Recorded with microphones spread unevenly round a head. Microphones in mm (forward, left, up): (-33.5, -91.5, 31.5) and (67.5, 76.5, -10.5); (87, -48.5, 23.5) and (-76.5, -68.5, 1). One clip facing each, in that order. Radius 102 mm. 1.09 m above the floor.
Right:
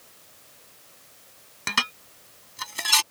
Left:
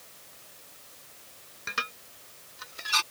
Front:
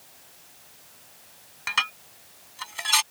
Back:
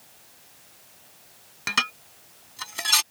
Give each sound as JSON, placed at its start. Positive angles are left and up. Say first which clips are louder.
{"t": 1.7, "sound": "dishes clattering", "louder": "right 7 dB, back 2 dB", "azimuth_deg": -130}